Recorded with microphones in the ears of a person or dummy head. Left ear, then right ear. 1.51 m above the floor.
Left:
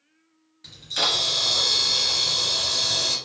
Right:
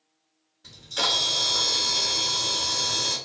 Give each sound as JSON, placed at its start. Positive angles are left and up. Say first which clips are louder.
{"t": 0.6, "sound": "a camera shutter", "louder": "left 2 dB", "side_deg": 45, "distance_m": 1.3}